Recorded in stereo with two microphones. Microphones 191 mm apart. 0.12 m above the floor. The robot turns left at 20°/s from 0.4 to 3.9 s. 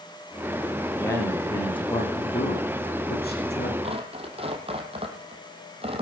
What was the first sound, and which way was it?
A man speaking, 170° left.